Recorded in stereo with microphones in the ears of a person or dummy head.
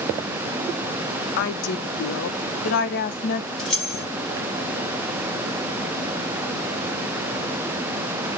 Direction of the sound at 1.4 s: 50° left (ahead or behind).